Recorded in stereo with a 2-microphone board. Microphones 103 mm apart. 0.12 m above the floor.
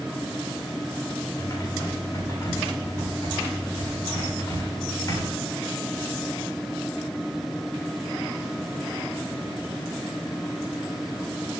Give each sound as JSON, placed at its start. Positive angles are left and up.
{"t": 1.4, "sound": "typing on a keyboard", "side_deg": 40, "distance_m": 8.0}